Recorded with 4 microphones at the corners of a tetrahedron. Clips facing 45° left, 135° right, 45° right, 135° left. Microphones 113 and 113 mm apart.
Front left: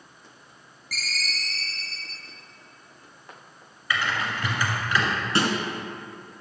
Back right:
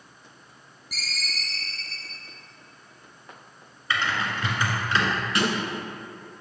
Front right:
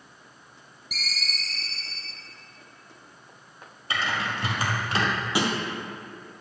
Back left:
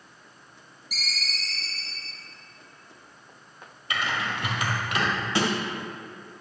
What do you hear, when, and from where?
0.9 s a ringtone: 70° right, 2 m
3.9 s typing on a keyboard: 80° right, 2 m
5.3 s a snare drum: 25° left, 1.8 m